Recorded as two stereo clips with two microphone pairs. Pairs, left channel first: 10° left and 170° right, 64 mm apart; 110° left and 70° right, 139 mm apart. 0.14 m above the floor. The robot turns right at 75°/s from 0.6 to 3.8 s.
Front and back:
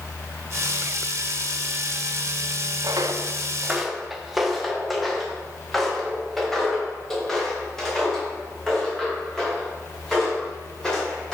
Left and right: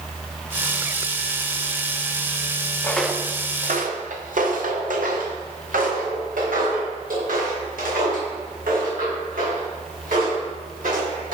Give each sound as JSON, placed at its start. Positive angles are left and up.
{"t": 2.8, "sound": "footsteps", "azimuth_deg": -175, "distance_m": 0.8}